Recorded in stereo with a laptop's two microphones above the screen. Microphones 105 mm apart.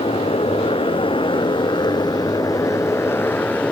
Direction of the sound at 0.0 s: 70° left (ahead or behind).